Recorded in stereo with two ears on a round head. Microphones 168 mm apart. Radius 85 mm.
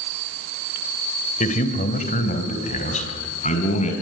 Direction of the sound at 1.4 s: 40° left (ahead or behind).